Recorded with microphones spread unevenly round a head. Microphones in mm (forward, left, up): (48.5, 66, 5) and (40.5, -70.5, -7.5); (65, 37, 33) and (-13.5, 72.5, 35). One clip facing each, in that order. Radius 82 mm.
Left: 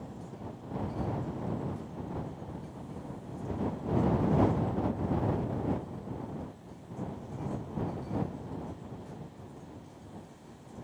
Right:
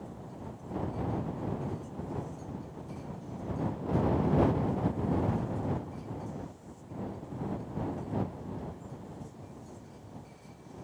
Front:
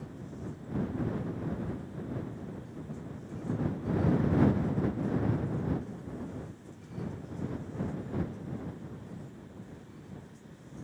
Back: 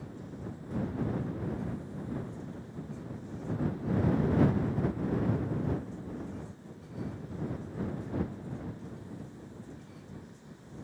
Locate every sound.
Only background noise.